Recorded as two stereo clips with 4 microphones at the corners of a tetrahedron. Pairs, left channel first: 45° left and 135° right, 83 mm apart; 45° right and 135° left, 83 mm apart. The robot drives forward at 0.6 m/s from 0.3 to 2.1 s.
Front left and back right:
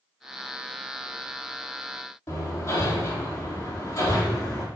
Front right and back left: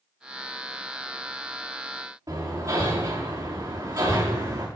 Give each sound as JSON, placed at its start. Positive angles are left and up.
{"t": 2.3, "sound": "hammering", "azimuth_deg": 95, "distance_m": 5.5}